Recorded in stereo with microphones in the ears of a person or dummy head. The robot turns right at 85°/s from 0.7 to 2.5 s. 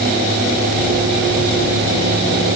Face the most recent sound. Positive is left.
No sound to turn to.